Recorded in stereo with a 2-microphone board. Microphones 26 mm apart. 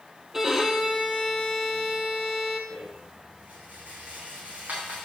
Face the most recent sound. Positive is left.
turn(degrees=-85)